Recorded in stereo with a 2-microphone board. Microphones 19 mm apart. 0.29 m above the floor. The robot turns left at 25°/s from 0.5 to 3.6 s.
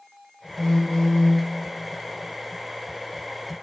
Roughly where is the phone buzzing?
Centre.